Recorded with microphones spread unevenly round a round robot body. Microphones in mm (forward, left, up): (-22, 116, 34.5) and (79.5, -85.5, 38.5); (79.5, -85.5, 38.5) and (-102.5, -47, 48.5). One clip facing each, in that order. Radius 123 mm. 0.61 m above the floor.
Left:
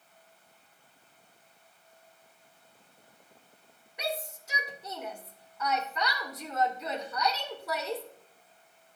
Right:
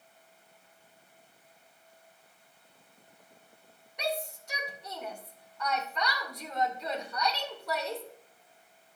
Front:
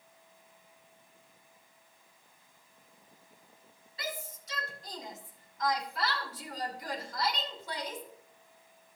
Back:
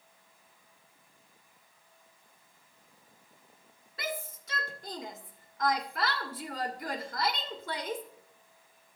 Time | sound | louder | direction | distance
4.0 | a shout | right 2 dB, back 3 dB | 160° right | 1.8 m